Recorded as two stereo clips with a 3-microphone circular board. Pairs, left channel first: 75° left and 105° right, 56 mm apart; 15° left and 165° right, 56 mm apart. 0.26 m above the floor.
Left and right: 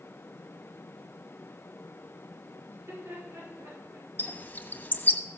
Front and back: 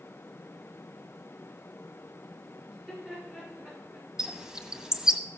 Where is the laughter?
90° right, 6 m; by 4.1 s 100° right, 6 m.